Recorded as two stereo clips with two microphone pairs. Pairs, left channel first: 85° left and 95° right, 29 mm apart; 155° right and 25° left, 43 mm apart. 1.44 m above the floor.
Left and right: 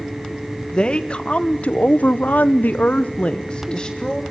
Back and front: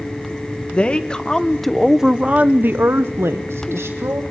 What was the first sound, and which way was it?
A woman speaking, 140° left.